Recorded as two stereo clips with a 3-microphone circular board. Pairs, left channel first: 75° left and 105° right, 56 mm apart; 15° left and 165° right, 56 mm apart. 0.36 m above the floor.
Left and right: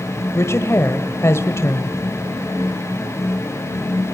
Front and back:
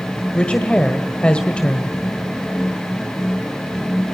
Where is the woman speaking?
80° left, 1.5 m.